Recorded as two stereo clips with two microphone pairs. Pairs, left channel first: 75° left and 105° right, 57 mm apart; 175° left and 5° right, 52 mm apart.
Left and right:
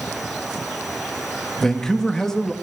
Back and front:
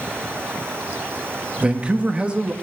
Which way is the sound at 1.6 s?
10° left.